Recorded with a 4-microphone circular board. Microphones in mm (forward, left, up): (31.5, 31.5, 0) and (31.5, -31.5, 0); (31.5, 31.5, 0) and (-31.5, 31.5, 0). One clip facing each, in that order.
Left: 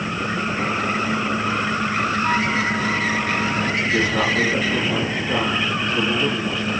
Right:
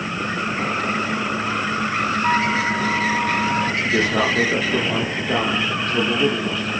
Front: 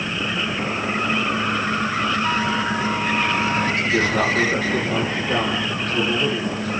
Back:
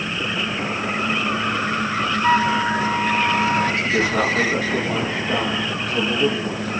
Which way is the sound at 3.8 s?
100° right.